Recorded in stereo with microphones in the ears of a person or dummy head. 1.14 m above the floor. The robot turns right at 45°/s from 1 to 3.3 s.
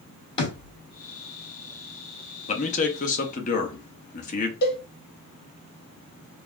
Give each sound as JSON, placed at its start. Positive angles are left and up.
{"t": 0.4, "sound": "a thud", "side_deg": 25, "distance_m": 1.2}
{"t": 2.5, "sound": "a man speaking", "azimuth_deg": 65, "distance_m": 0.7}
{"t": 4.6, "sound": "a cowbell", "side_deg": 50, "distance_m": 1.1}